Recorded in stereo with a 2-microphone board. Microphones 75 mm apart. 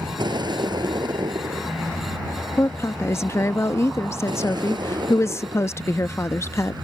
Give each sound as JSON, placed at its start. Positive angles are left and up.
{"t": 0.0, "sound": "a vehicle", "side_deg": -75}
{"t": 2.6, "sound": "a woman speaking", "side_deg": 35}